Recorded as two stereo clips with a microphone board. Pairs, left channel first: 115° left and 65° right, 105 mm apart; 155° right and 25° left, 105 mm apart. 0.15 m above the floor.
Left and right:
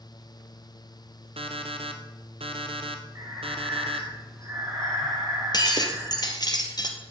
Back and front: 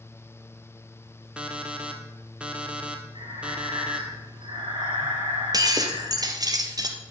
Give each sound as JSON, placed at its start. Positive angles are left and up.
{"t": 1.4, "sound": "an alarm clock", "azimuth_deg": -55, "distance_m": 1.7}
{"t": 3.1, "sound": "breathing", "azimuth_deg": -10, "distance_m": 3.5}
{"t": 5.5, "sound": "breaking glass", "azimuth_deg": 70, "distance_m": 1.8}